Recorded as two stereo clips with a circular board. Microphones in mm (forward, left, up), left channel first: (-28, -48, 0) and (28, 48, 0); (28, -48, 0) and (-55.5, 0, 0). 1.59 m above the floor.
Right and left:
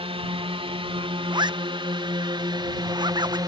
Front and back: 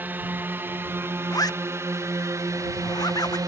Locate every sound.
0.0 s a drone: 80° left; by 3.5 s 105° left
1.3 s a zipper: 15° left